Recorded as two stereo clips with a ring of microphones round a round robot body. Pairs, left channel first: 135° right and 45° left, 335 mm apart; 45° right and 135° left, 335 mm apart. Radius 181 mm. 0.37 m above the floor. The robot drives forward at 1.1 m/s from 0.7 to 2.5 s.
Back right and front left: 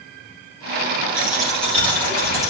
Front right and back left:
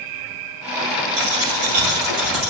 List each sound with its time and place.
1.1 s a dropped coin: 130° left, 4 m; by 2.5 s 145° left, 5 m